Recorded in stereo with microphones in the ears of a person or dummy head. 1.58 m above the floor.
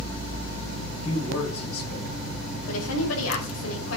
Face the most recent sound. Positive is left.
turn(degrees=80)